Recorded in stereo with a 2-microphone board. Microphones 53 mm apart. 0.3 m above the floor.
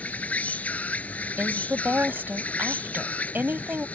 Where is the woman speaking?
40° right (ahead or behind).